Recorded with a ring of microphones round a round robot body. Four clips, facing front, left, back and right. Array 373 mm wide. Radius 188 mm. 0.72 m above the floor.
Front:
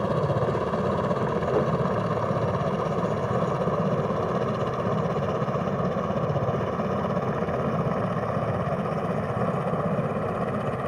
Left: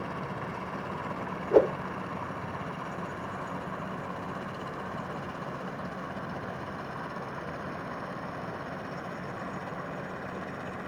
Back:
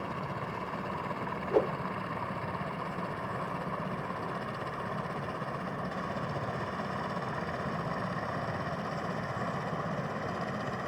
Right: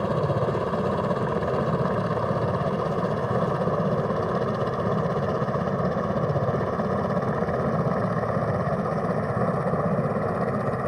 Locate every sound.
0.0 s a helicopter: 45° right; by 10.9 s 60° right
1.5 s a whoosh: 85° left